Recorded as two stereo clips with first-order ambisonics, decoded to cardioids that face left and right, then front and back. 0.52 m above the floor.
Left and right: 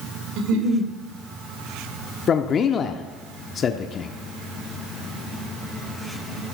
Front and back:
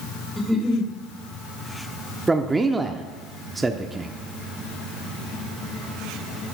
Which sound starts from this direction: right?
A giggle, at 0.4 s.